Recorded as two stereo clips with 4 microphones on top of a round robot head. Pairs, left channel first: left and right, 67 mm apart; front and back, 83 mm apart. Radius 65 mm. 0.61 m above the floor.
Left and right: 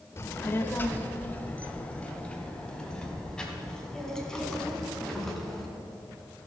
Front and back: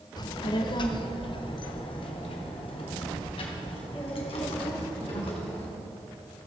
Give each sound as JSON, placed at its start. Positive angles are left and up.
{"t": 0.2, "sound": "a child speaking", "azimuth_deg": 40, "distance_m": 1.0}